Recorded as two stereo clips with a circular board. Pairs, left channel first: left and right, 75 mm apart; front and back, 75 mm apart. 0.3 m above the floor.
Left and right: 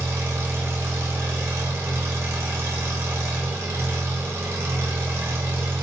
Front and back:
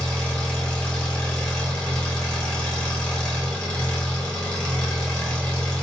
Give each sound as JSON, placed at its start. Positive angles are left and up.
{"t": 0.0, "sound": "an engine running", "azimuth_deg": -70, "distance_m": 0.9}